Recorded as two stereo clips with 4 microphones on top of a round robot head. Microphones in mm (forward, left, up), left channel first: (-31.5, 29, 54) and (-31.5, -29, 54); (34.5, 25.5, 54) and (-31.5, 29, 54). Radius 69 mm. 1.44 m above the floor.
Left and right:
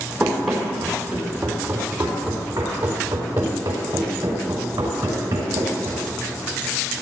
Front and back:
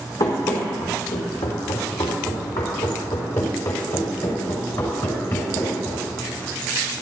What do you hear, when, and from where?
0.2 s running footsteps: 5° left, 3.5 m; by 6.0 s 55° right, 5.5 m